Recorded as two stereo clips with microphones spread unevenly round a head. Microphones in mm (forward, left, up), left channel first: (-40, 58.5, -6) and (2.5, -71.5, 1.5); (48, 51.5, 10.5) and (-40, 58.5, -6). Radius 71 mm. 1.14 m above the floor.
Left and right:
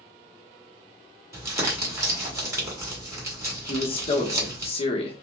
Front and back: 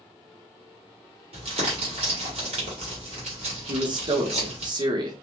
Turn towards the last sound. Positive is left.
turn(degrees=150)